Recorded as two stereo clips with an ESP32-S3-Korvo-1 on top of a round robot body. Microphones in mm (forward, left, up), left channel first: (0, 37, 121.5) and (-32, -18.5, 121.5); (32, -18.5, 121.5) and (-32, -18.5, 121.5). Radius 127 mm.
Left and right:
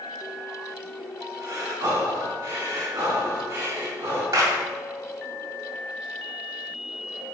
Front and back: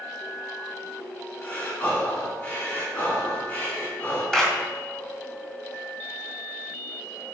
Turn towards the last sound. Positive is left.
turn(degrees=-85)